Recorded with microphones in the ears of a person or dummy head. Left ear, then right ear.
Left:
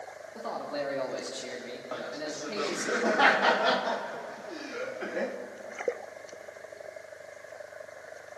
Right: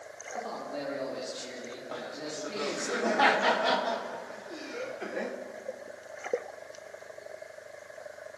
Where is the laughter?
Centre (ahead or behind), 1.4 m.